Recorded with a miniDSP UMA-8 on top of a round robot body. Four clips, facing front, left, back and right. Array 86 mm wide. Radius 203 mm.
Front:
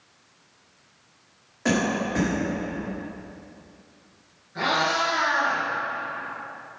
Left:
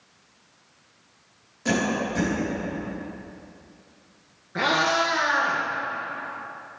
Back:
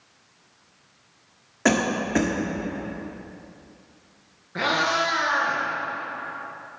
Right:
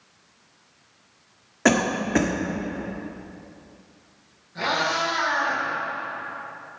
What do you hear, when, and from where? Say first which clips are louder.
1.6 s a cough: right 4 dB, back 2 dB; 115° right, 1.9 m
4.5 s a cat meowing: left 2 dB, back 1 dB; 125° left, 2.5 m